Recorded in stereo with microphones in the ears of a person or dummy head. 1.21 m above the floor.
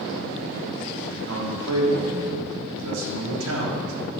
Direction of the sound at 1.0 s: 75° right (ahead or behind).